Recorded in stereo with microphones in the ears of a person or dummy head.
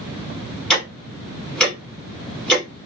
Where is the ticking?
5° left (ahead or behind), 0.9 m.